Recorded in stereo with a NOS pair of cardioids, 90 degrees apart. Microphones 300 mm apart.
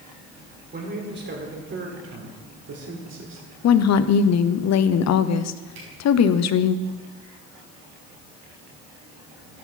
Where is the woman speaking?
60° left, 0.9 m.